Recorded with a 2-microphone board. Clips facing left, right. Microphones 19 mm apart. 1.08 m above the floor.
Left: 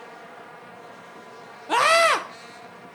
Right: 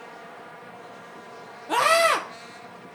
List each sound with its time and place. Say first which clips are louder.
1.7 s a scream: left 2 dB; 15° left (ahead or behind), 0.6 m